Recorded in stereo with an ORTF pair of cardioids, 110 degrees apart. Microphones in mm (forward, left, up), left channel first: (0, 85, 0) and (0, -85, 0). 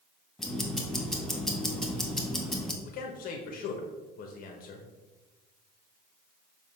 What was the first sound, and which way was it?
Ticking, 5° left.